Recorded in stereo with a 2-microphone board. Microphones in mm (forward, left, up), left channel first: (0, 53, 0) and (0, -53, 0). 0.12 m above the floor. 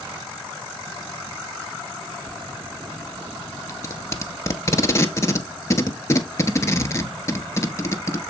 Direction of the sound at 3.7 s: 25° left (ahead or behind).